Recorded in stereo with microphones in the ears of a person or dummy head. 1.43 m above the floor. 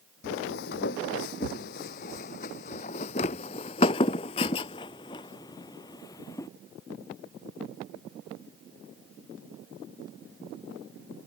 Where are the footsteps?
65° left (ahead or behind); by 6.5 s 25° left (ahead or behind).